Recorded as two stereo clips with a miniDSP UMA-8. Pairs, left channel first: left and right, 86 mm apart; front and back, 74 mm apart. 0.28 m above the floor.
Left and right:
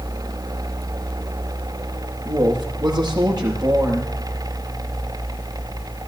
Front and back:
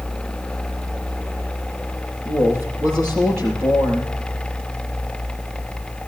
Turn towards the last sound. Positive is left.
turn(degrees=-125)